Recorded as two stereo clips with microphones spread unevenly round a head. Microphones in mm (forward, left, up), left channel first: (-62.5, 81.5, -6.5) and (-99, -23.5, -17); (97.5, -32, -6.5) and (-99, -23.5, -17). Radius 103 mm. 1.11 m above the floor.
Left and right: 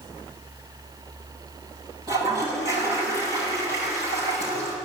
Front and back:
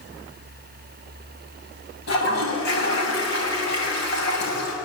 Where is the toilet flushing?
40° right, 7.5 m.